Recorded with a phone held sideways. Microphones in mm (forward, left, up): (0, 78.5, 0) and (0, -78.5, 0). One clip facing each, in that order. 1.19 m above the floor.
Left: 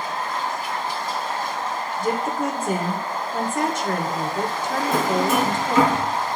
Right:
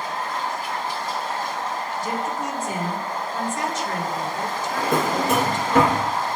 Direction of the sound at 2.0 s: 55° left (ahead or behind).